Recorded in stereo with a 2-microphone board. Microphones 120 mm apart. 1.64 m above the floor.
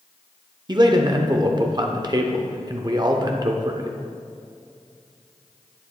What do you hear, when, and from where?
0.7 s a man speaking: 35° right (ahead or behind), 0.6 m